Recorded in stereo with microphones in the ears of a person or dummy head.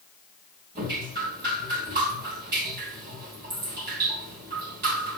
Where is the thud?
I don't hear a thud.